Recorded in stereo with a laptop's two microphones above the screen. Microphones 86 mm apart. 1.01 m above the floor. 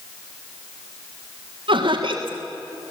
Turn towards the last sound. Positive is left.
turn(degrees=-75)  # may be behind; listen again after turning